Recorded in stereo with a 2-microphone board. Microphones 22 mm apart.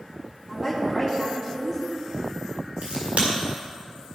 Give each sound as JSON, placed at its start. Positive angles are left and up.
{"t": 0.5, "sound": "a woman speaking", "side_deg": -10, "distance_m": 3.5}
{"t": 2.8, "sound": "a crack", "side_deg": -85, "distance_m": 4.5}